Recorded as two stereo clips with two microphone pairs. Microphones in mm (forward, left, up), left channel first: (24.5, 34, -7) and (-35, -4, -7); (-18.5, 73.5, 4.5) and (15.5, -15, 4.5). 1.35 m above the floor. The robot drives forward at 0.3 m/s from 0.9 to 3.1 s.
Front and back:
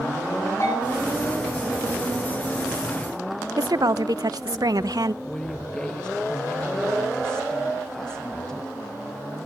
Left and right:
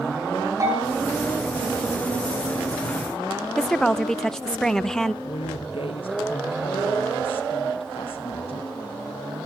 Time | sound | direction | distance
0.6 | a bell | 10° right | 8 m
3.6 | a woman speaking | 165° right | 0.7 m
5.2 | a woman speaking | 110° left | 0.8 m